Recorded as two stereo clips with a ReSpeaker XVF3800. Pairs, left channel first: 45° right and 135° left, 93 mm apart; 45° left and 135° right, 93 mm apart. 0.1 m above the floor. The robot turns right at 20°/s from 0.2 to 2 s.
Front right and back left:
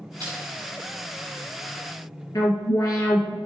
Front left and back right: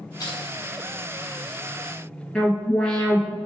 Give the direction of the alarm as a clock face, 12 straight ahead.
1 o'clock.